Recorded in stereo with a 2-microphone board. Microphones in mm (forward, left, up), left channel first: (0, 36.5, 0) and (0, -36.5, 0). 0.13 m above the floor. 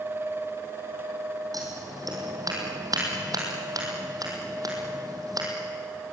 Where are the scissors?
60° right (ahead or behind), 4 m.